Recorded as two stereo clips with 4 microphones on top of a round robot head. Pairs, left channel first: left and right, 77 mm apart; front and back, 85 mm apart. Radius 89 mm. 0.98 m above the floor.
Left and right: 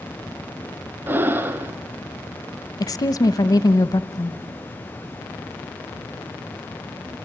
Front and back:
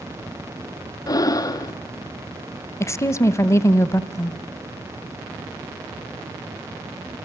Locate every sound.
1.1 s breathing: 35° right, 0.8 m
2.8 s a woman speaking: 55° left, 0.8 m